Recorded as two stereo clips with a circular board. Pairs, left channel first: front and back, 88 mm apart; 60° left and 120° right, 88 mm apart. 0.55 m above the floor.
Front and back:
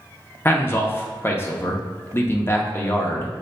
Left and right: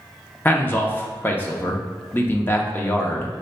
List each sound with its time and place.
0.5 s a man speaking: 20° left, 0.6 m